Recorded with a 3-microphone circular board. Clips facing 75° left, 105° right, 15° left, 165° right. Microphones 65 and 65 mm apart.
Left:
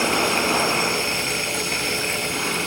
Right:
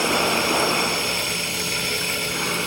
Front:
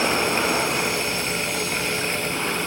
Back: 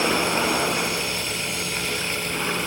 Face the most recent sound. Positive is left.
No sound to turn to.